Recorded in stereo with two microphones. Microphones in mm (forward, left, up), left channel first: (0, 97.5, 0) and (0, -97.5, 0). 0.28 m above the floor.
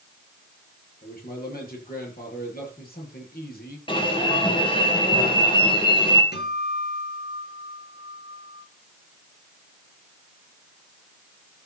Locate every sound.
1.0 s a man speaking: 55° left (ahead or behind), 7 m
3.9 s an alarm: 25° left (ahead or behind), 3.5 m
6.3 s a guitar: 65° left (ahead or behind), 5.5 m